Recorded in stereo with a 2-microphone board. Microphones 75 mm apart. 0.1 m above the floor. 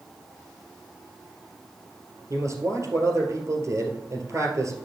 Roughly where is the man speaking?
Right.